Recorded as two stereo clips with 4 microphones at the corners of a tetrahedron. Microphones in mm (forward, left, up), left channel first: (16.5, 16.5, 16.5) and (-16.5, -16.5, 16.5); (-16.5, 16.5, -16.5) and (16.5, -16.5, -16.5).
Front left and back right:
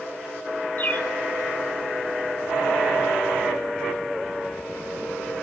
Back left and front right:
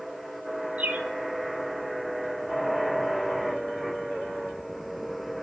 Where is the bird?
5° left, 0.8 m.